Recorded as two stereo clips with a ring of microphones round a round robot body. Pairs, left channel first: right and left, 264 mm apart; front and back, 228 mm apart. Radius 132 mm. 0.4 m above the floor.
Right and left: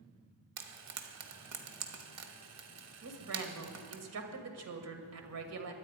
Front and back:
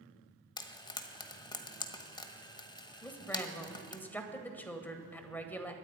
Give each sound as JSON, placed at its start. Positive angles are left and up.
{"t": 0.6, "sound": "frying", "azimuth_deg": 70, "distance_m": 1.4}
{"t": 3.0, "sound": "a woman speaking", "azimuth_deg": 80, "distance_m": 1.9}